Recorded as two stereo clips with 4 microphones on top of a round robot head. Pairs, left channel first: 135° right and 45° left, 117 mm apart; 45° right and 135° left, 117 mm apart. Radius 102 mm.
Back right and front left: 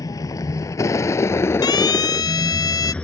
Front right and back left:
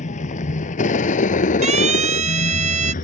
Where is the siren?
165° left; by 2.9 s 160° left.